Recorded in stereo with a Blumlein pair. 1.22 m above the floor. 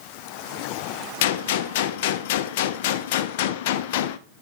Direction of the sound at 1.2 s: 50° left.